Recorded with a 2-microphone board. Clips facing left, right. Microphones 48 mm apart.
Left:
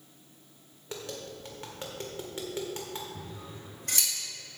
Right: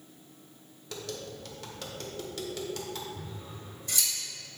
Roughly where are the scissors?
Left.